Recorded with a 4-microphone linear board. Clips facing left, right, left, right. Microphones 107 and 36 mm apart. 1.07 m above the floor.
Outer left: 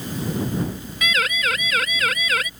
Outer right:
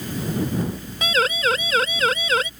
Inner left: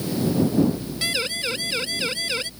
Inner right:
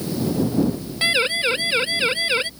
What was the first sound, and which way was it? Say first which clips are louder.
A siren: outer right 3 dB, inner right 8 dB; 30° right (ahead or behind).